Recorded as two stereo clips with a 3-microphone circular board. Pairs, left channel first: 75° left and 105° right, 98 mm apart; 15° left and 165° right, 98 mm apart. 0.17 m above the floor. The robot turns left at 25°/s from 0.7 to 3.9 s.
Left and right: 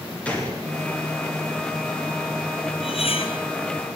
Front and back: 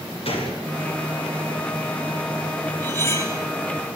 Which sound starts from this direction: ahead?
A gunshot, at 0.2 s.